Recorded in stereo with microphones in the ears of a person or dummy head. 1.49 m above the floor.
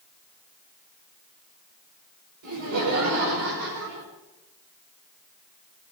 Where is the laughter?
75° right (ahead or behind), 7 m.